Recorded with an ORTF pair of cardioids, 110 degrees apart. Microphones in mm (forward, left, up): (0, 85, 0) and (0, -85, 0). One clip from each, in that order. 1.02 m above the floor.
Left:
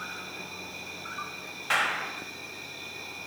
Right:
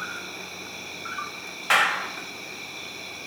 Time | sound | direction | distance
0.0 | an insect | 30° right | 1.6 m
1.7 | a clap | 40° right | 4 m